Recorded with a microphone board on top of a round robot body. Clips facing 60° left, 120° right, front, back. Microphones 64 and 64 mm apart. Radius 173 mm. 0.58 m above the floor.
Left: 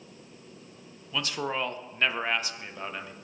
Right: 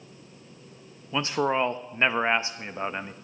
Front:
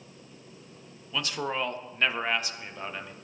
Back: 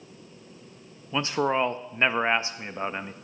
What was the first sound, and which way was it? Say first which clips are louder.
A man speaking: right 6 dB, back 7 dB; 150° right.